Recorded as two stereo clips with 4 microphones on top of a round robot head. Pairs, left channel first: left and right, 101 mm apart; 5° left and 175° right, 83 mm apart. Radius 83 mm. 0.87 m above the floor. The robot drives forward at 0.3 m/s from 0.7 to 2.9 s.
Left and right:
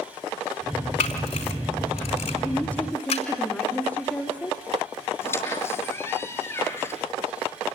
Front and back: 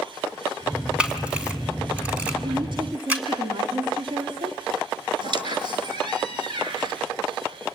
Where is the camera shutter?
110° left, 4 m; by 3.4 s 115° left, 4.5 m.